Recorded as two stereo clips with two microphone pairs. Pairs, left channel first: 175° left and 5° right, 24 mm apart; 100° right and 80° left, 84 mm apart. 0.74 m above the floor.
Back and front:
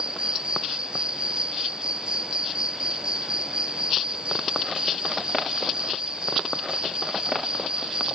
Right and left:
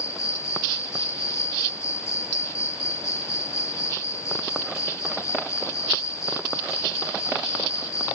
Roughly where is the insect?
Ahead right.